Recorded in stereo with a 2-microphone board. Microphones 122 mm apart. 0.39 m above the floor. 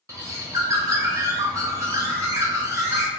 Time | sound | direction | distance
0.1 | a bird | 25° right (ahead or behind) | 0.6 m